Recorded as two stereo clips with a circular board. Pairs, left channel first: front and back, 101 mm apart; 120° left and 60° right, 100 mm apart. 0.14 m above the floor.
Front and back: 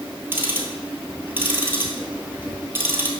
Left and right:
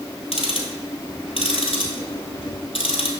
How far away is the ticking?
About 1.2 m.